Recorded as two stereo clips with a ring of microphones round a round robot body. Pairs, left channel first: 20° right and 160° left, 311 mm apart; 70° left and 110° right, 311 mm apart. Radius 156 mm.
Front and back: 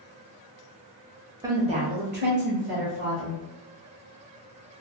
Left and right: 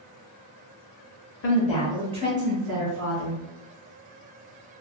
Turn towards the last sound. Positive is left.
turn(degrees=-140)